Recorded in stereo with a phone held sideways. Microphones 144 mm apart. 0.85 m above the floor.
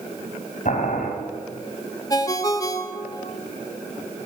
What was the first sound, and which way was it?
Boiling, 55° left (ahead or behind).